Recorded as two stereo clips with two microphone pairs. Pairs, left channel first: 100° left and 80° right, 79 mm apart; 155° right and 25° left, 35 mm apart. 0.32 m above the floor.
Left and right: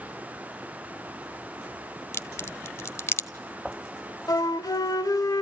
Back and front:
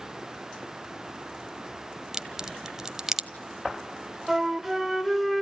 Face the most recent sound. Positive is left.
turn(degrees=120)